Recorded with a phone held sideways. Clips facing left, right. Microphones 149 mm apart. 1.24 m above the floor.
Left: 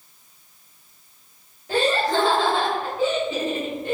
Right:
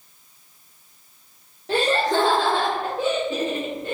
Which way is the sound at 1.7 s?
75° right (ahead or behind).